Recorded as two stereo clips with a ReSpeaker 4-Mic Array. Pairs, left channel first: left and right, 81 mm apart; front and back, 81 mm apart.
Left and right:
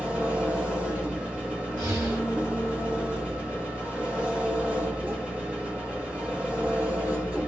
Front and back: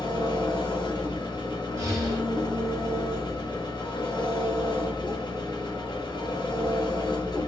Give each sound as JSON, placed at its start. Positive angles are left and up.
{"t": 0.0, "sound": "an engine running", "azimuth_deg": -15, "distance_m": 1.1}
{"t": 1.8, "sound": "breathing", "azimuth_deg": -135, "distance_m": 1.4}